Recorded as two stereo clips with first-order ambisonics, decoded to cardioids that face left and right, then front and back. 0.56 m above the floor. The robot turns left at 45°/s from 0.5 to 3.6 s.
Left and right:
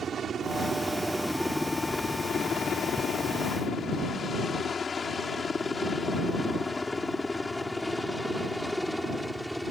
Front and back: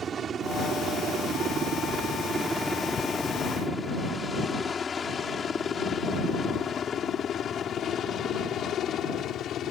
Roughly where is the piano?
No piano in this recording.